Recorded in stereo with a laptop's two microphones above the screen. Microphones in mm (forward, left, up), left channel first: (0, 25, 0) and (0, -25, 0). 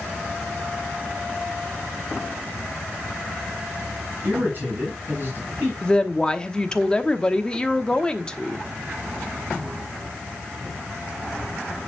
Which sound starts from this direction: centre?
A woman speaking, at 5.8 s.